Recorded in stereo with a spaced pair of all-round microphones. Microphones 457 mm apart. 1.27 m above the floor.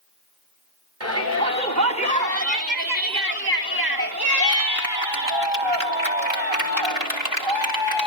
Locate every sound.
1.0 s a shout: 35° right (ahead or behind), 4.5 m; by 8.1 s 85° right, 5 m